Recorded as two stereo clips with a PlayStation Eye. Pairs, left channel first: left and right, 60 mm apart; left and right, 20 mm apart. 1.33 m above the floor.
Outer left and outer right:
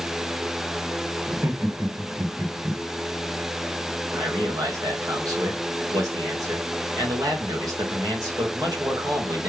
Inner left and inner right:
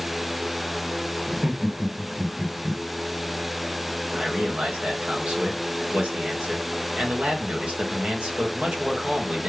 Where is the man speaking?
75° right (ahead or behind), 1.6 m.